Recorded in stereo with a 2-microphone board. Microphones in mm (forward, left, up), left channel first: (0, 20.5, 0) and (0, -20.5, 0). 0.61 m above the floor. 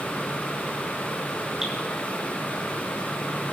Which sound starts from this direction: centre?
Dripping, at 1.6 s.